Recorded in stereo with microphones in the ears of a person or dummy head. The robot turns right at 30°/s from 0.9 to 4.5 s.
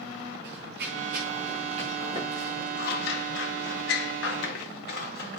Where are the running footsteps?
65° right (ahead or behind), 7 m; by 2.7 s 5° right (ahead or behind), 8 m.